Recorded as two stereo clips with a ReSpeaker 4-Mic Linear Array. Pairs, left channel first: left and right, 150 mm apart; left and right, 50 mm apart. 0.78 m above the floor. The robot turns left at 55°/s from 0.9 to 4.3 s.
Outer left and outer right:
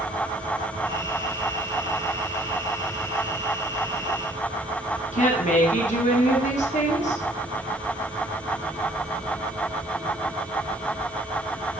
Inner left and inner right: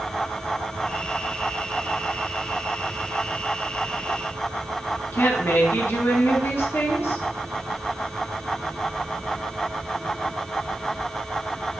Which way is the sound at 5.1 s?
50° left (ahead or behind).